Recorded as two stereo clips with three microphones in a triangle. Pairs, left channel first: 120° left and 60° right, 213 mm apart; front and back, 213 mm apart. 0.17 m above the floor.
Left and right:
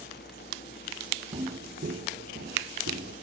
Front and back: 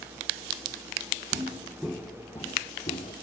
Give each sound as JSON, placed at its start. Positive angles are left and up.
{"t": 1.3, "sound": "footsteps", "azimuth_deg": -115, "distance_m": 0.7}